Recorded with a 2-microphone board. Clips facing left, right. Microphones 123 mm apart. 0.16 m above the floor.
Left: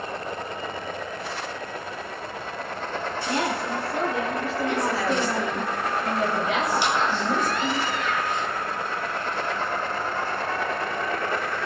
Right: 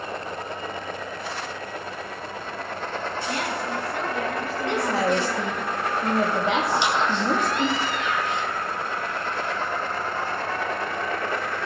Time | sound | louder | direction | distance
3.3 | a woman speaking | left 4 dB | 30° left (ahead or behind) | 3 m
4.7 | a woman speaking | right 3 dB | 75° right (ahead or behind) | 6.5 m
6.7 | a squeak | right 1 dB | 20° right (ahead or behind) | 3 m